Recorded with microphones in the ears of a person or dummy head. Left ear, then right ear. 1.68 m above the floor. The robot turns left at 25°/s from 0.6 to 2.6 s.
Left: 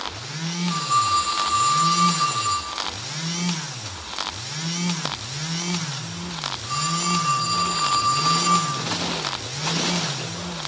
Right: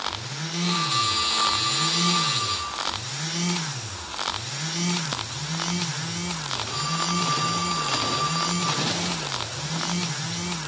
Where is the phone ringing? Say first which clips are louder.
Left 4 dB; 15° left (ahead or behind), 7 m; by 8.7 s 65° left (ahead or behind), 7 m.